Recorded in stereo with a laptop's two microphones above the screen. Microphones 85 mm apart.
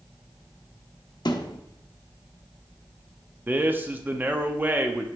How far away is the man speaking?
About 0.7 m.